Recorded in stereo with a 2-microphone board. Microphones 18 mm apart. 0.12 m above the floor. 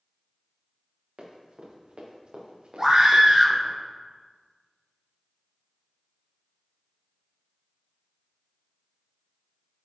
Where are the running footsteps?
60° right (ahead or behind), 4 m; by 3.8 s 75° right (ahead or behind), 2.5 m.